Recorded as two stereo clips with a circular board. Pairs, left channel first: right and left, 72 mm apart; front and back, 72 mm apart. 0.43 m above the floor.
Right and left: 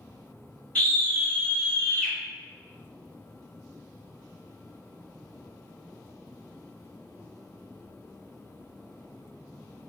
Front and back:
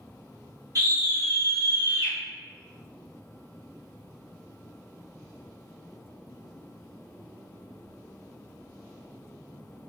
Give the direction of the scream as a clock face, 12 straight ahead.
5 o'clock.